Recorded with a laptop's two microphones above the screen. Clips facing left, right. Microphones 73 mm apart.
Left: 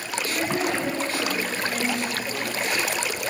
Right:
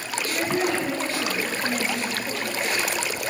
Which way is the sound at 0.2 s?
25° left (ahead or behind).